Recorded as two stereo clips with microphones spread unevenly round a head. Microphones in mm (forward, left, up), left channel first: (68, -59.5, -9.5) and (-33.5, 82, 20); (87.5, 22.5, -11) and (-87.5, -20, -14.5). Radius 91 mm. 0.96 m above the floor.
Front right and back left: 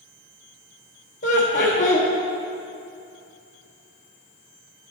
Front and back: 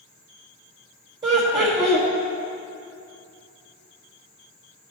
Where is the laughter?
100° right, 1.0 m.